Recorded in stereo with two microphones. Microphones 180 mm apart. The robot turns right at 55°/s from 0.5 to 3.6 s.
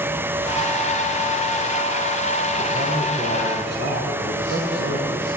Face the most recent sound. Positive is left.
turn(degrees=-105)